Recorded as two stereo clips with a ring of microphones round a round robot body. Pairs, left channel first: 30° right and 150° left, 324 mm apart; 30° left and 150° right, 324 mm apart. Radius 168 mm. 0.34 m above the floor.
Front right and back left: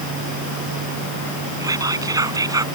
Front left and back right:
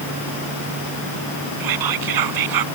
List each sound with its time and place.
1.6 s whispering: 130° right